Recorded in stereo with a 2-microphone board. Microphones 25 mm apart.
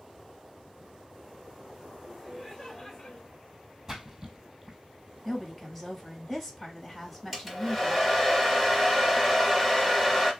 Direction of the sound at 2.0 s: 20° right (ahead or behind).